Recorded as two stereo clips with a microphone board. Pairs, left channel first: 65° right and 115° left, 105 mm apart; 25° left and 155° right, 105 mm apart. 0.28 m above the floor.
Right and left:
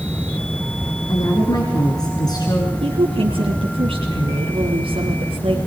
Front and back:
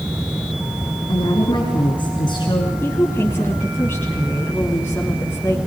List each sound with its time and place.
1.1 s a woman speaking: 20° right, 3 m
2.8 s a woman speaking: 90° left, 2.5 m